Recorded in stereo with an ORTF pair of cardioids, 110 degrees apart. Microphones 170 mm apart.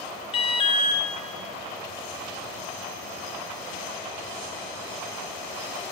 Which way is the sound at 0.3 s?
35° left.